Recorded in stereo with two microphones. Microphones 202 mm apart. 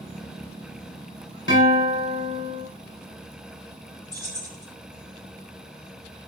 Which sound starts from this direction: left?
A guitar, at 1.5 s.